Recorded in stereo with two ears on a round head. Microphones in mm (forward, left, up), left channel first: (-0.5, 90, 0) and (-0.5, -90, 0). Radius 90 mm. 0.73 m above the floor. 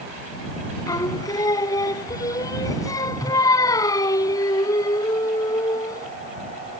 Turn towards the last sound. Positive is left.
turn(degrees=20)  # may be behind; listen again after turning